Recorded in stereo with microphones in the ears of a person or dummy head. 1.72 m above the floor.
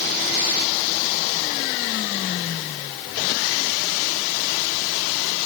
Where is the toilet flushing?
I don't hear a toilet flushing.